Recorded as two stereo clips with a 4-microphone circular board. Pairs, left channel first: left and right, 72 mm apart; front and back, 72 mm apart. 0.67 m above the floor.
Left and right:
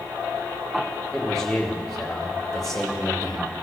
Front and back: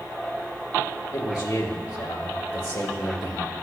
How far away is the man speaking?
About 2 m.